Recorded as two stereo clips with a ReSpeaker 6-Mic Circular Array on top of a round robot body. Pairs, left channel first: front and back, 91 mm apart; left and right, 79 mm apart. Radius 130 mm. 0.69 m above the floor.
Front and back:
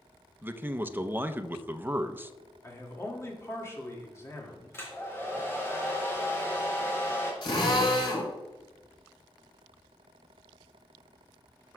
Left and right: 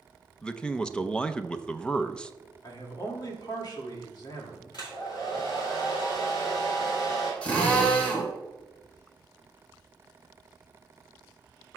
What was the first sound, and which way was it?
A man speaking, 150° left.